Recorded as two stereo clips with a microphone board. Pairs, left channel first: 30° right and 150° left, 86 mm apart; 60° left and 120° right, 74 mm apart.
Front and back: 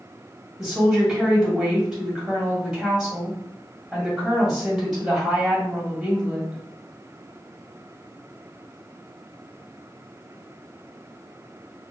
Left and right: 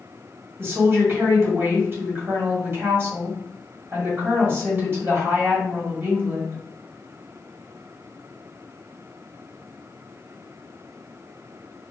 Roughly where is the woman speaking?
Behind right.